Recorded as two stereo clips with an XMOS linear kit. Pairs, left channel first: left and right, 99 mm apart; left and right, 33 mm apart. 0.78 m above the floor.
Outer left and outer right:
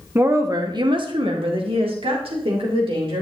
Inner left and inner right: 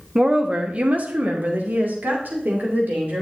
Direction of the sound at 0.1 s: 25° right (ahead or behind).